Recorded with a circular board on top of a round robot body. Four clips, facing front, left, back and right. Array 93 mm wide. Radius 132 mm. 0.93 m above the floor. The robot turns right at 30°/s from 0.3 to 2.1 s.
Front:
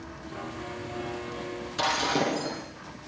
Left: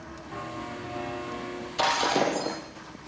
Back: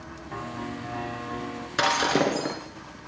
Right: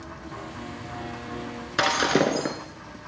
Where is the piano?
170° left, 4.5 m; by 1.7 s 150° right, 4.5 m.